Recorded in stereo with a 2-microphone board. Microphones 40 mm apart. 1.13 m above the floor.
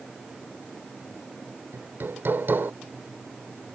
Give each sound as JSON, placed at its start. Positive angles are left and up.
{"t": 1.7, "sound": "hammering", "side_deg": -65}